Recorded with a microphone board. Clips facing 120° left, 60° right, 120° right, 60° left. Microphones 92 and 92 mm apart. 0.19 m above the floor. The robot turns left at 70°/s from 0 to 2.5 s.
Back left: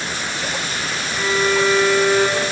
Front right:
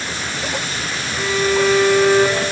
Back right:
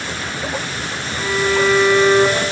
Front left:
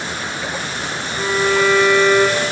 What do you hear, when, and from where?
1.2 s a violin: 15° left, 5 m; by 2.4 s 75° right, 5 m